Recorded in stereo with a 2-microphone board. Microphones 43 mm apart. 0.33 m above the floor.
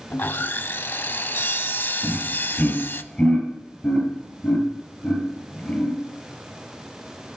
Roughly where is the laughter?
Left.